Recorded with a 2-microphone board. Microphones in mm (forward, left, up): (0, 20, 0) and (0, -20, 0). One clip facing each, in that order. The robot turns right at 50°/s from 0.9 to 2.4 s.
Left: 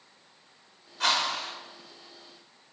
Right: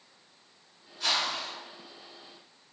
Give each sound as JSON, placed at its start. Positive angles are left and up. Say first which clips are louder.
{"t": 1.0, "sound": "a whoosh", "louder": "left 3 dB", "side_deg": 75, "distance_m": 0.8}